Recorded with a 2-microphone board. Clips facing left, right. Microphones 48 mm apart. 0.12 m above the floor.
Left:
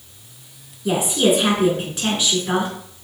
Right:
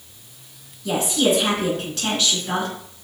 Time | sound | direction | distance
0.8 | a woman speaking | 20° left (ahead or behind) | 1.1 m